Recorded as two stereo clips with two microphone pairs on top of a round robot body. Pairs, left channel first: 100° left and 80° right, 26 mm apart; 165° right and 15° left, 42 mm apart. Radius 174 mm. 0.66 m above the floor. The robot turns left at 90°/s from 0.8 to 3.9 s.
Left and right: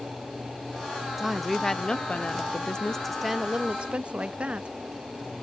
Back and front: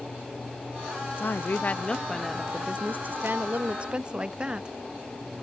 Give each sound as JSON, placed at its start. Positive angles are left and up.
{"t": 1.2, "sound": "a woman speaking", "azimuth_deg": -155}